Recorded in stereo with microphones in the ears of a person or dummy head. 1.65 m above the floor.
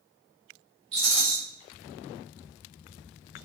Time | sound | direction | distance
0.9 | a rattle | 30° right (ahead or behind) | 1.6 m